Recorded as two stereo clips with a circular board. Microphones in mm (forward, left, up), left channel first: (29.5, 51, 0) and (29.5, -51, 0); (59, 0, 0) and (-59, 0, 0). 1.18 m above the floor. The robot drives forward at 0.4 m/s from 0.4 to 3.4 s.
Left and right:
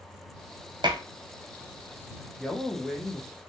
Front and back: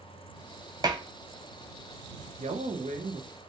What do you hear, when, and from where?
0.8 s dishes clattering: 125° right, 0.5 m; by 1.0 s 130° right, 0.6 m
2.4 s a man speaking: straight behind, 0.6 m